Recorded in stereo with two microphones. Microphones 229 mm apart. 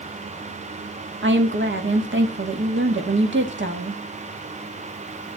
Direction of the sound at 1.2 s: 55° right (ahead or behind).